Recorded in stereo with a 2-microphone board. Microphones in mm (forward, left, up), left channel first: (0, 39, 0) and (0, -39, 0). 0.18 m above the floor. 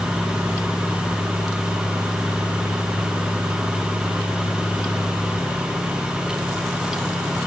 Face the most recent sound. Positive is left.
No sound to turn to.